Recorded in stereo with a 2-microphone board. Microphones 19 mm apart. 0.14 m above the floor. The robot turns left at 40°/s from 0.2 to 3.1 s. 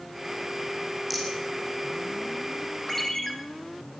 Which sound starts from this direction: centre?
A rattle, at 1.1 s.